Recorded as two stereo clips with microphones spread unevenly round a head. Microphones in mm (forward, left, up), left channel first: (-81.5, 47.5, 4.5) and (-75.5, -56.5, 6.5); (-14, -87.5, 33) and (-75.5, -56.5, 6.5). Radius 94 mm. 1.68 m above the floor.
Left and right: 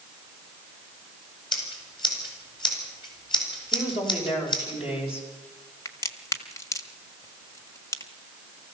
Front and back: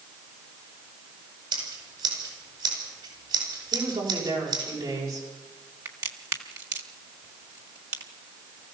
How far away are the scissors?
About 8 m.